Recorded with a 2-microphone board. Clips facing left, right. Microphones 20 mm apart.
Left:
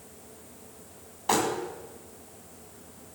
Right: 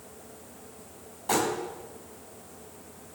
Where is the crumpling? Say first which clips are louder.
Left 1 dB; 30° left (ahead or behind), 3 m.